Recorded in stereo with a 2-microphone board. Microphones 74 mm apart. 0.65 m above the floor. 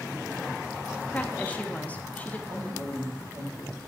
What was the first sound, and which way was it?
A woman speaking, 20° left (ahead or behind).